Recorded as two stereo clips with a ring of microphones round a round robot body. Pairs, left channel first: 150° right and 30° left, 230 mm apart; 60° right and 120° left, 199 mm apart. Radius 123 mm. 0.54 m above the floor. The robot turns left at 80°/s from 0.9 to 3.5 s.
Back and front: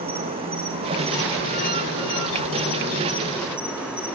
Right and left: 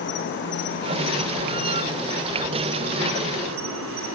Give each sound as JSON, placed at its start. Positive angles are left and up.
{"t": 0.0, "sound": "an insect", "azimuth_deg": -35, "distance_m": 4.5}